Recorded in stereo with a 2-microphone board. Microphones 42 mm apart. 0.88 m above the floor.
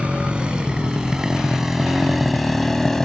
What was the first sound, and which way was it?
A motorcycle, 25° right (ahead or behind).